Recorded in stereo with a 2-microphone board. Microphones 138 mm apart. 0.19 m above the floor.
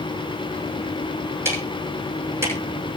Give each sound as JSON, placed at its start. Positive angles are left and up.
{"t": 1.4, "sound": "ticking", "side_deg": -20, "distance_m": 8.0}